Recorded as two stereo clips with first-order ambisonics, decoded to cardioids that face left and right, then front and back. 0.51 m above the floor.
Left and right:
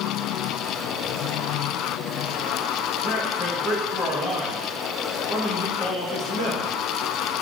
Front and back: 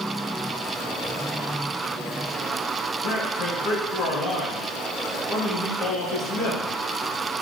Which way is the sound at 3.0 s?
35° left.